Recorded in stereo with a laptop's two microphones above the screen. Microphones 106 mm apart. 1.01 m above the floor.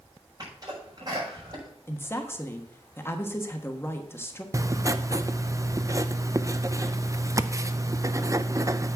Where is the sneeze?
40° right (ahead or behind), 6 m.